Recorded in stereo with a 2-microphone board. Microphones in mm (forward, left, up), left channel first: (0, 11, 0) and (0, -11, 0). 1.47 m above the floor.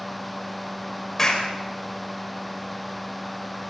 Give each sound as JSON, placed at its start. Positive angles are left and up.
{"t": 1.2, "sound": "a clap", "side_deg": 25, "distance_m": 6.0}